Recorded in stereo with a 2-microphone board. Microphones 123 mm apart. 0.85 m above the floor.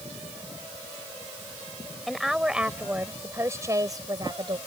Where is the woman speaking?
Centre (ahead or behind); by 4.6 s 40° right (ahead or behind).